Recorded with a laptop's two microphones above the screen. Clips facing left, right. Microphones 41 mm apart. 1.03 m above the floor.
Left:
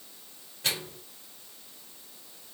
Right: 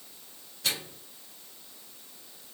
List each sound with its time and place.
0.6 s a microwave: 25° left (ahead or behind), 4 m